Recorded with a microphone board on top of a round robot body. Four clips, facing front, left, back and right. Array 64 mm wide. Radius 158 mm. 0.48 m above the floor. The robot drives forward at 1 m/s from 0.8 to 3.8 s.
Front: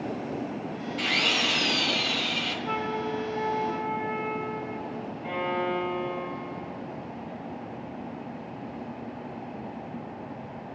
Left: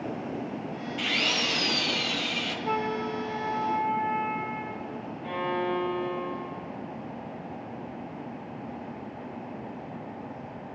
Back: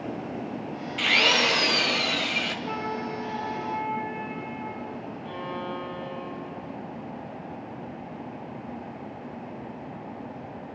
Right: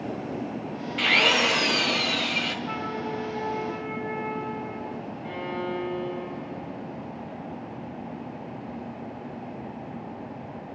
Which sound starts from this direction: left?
A flute, at 2.6 s.